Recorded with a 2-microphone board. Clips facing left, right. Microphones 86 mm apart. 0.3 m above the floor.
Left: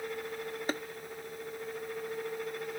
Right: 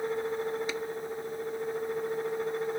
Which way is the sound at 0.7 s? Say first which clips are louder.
Even; 45° left (ahead or behind).